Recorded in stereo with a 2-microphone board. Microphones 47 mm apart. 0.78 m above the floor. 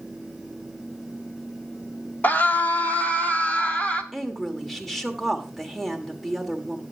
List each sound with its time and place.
2.2 s a scream: 35° left (ahead or behind), 1.2 m; by 4.0 s 30° left (ahead or behind), 1.7 m
4.1 s a woman speaking: 5° left (ahead or behind), 1.9 m